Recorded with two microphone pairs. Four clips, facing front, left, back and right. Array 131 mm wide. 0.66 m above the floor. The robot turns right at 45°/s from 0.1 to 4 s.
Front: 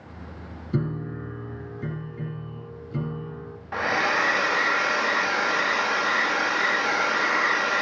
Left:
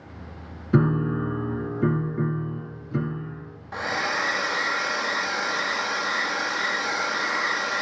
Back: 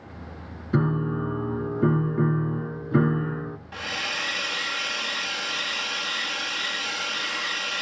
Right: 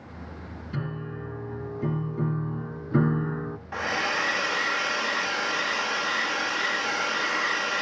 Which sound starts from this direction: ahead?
A hair dryer, at 3.7 s.